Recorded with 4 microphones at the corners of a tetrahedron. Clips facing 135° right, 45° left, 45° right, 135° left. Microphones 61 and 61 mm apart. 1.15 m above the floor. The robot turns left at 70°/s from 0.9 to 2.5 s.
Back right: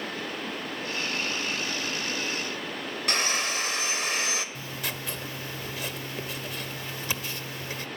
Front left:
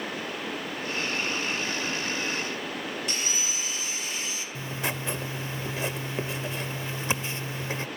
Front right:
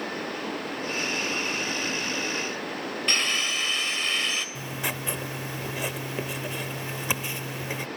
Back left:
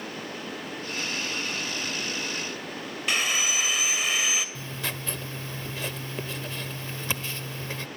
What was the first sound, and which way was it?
Sawing, 145° right.